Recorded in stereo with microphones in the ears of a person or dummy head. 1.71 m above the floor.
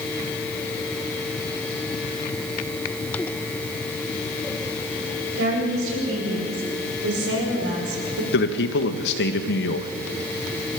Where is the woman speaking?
85° right, 8 m; by 8.2 s 80° right, 4.5 m.